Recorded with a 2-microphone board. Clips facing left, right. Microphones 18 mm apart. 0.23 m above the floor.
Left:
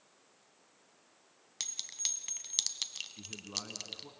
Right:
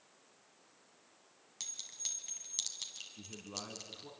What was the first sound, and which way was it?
A clink, 35° left (ahead or behind).